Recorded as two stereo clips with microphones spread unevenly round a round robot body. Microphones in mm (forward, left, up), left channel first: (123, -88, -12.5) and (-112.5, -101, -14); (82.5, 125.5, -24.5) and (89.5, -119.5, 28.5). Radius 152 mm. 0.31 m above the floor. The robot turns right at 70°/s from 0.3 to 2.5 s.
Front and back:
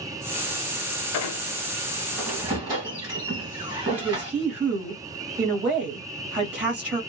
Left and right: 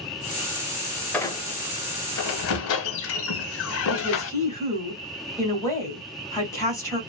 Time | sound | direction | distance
1.1 | a squeak | 15° left | 0.6 m
3.9 | a woman speaking | 105° left | 1.4 m